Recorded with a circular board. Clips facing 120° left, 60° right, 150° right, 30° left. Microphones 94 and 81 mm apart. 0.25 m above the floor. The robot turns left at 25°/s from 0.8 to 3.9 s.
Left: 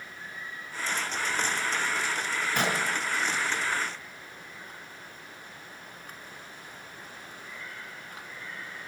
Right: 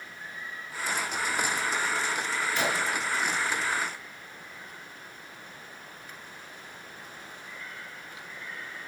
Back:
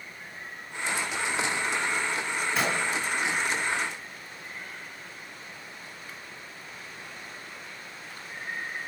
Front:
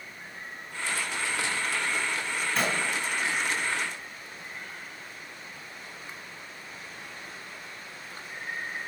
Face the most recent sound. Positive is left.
turn(degrees=90)